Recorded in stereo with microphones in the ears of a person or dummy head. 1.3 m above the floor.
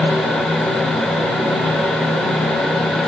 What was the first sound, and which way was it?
Only background noise.